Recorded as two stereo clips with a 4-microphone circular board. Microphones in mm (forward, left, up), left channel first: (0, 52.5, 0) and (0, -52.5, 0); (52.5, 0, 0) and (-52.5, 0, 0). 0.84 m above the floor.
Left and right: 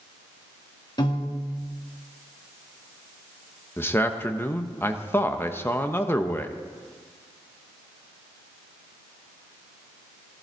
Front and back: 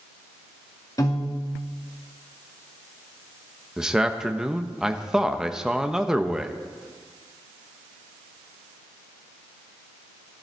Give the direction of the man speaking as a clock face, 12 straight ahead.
8 o'clock.